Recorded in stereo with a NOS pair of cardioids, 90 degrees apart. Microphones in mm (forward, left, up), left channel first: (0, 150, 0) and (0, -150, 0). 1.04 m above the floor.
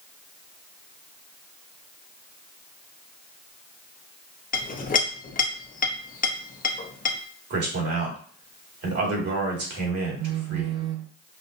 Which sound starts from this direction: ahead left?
A clink, at 4.5 s.